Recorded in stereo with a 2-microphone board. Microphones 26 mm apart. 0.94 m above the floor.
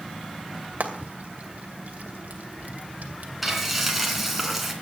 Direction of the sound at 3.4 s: 5° right (ahead or behind).